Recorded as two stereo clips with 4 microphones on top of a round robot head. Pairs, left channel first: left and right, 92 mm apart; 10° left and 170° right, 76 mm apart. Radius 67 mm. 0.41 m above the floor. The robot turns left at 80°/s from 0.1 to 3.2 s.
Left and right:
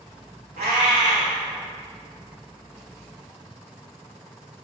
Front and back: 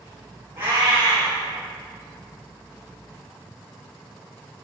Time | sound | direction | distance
0.6 | a cat meowing | 105° right | 1.1 m